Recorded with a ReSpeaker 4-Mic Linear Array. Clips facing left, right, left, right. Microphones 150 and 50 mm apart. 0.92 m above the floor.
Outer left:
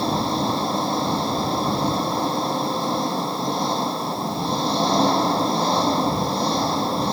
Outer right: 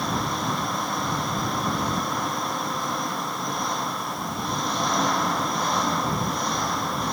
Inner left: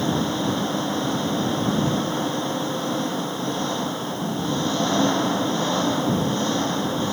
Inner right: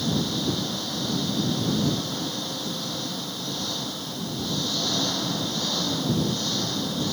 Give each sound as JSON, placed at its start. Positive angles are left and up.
{"t": 0.0, "sound": "an engine running", "side_deg": 30}